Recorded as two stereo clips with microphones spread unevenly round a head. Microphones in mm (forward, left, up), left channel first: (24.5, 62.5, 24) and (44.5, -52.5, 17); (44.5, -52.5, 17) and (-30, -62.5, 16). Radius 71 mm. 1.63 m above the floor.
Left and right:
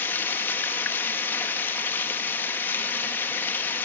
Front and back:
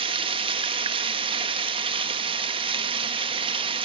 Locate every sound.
0.0 s running water: 175° left, 2 m